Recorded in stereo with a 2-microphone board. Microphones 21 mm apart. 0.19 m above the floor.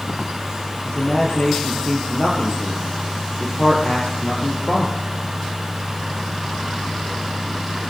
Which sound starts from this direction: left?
A man speaking, at 0.8 s.